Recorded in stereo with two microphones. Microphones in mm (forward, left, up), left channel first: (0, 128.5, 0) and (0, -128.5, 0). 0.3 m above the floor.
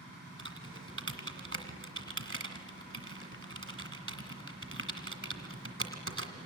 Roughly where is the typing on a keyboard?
Right.